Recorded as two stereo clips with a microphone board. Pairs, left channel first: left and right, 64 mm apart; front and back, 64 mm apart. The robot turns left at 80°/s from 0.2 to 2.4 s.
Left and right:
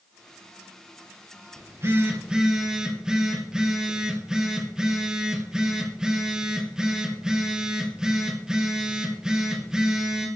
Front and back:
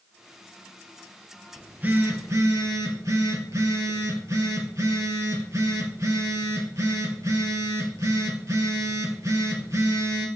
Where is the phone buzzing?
105° right, 2 m; by 10.3 s 170° right, 2 m.